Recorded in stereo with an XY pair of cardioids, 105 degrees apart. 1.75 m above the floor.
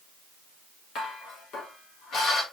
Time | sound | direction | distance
0.9 | dishes clattering | 70° left | 4 m